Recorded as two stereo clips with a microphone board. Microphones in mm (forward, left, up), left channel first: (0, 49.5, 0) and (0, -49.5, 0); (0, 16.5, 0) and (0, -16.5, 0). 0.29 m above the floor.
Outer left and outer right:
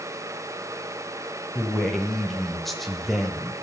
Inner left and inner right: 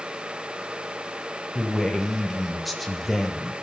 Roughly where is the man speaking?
Centre.